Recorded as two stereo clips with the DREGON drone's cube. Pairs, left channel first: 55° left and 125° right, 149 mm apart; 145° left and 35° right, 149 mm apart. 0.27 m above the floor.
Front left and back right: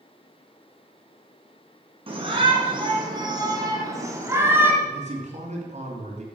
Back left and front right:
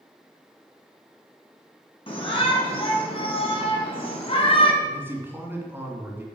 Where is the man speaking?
105° right, 2.5 m.